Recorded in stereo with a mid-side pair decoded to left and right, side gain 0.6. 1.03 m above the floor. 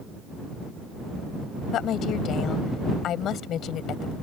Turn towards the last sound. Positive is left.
turn(degrees=55)